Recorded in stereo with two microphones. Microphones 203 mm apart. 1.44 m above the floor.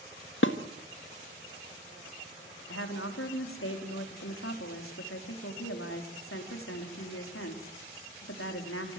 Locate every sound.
0.4 s dishes clattering: 65° left (ahead or behind), 1.4 m
2.7 s a woman speaking: 85° left, 3.5 m